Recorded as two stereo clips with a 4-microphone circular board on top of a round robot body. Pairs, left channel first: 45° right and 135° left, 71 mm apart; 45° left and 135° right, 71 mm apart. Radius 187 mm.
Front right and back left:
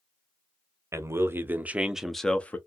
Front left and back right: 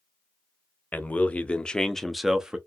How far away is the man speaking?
About 0.9 m.